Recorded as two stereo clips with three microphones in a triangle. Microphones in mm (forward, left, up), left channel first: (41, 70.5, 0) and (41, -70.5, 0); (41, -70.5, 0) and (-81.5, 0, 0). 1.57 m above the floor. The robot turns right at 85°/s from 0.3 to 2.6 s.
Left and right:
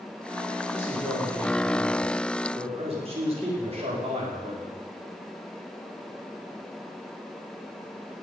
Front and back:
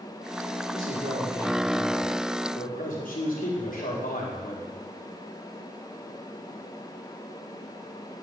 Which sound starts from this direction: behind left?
A man speaking, at 0.7 s.